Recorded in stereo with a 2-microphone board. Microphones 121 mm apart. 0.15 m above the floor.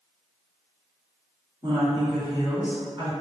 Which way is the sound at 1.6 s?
35° right (ahead or behind).